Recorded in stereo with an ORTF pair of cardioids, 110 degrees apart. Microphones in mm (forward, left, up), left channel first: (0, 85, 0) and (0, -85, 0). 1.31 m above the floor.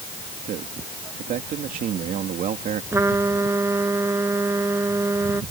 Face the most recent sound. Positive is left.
turn(degrees=-15)